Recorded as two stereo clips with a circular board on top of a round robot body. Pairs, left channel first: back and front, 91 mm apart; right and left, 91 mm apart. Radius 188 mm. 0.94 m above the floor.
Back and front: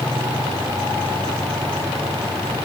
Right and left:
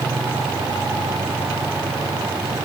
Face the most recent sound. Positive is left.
No sound to turn to.